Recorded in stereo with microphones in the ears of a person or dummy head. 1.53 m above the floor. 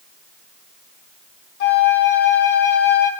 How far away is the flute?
About 0.6 m.